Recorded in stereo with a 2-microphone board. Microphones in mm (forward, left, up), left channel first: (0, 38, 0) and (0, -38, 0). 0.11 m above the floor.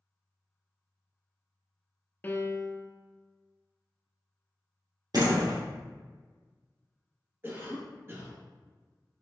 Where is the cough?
30° right (ahead or behind), 1.9 m.